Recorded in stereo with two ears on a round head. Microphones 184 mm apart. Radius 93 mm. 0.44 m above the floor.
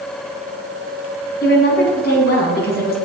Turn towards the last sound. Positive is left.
turn(degrees=50)  # may be behind; listen again after turning